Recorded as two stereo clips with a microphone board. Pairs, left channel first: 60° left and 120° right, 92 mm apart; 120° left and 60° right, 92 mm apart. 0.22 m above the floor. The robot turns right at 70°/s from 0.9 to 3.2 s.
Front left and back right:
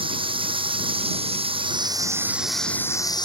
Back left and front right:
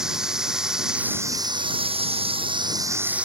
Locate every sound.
0.0 s running water: 145° right; by 3.3 s 15° left